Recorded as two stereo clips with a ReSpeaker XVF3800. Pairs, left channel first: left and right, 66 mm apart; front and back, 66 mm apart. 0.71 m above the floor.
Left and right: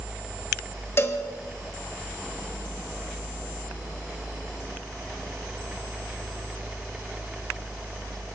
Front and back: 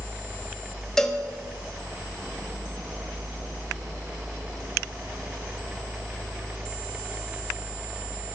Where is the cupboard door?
I don't hear a cupboard door.